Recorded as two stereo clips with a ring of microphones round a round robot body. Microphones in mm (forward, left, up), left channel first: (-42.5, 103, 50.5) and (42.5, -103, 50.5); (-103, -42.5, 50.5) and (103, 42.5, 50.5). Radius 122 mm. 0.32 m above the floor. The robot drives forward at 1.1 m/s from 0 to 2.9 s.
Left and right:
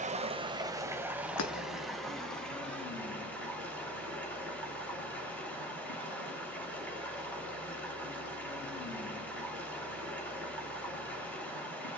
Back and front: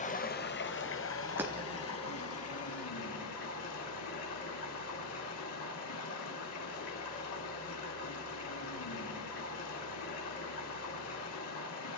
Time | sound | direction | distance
0.0 | running water | 110° right | 1.5 m
1.4 | breaking glass | 105° left | 3 m